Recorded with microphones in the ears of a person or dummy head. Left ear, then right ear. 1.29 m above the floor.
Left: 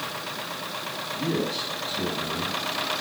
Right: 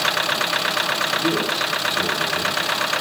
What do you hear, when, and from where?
1.1 s a man speaking: 40° left (ahead or behind), 10 m